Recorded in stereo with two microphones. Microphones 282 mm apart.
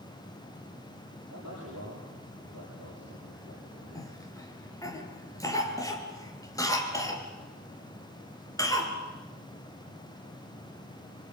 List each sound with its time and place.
1.3 s a man speaking: 70° right (ahead or behind), 8 m
4.0 s a cough: 10° left (ahead or behind), 4 m